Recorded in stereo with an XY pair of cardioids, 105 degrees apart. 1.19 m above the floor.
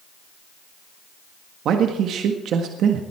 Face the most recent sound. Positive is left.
turn(degrees=-70)